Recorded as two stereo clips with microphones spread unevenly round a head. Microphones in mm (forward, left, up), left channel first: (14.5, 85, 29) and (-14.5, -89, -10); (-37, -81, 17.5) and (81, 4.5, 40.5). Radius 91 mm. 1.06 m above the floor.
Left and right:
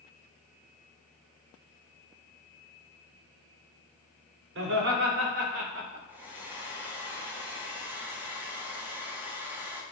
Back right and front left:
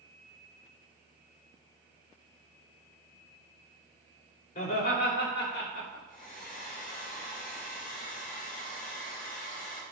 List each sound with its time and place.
4.5 s laughter: 125° right, 3.5 m; by 6.0 s 155° right, 4 m
6.1 s a hair dryer: straight behind, 1.6 m